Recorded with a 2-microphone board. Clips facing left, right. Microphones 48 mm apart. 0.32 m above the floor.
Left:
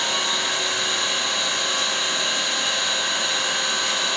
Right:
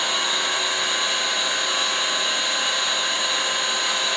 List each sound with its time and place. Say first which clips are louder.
0.0 s an engine running: even; 15° right (ahead or behind), 8 m